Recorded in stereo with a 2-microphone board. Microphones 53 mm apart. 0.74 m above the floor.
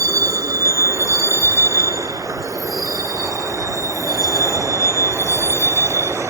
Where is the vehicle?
75° right (ahead or behind); by 6.3 s 70° right (ahead or behind).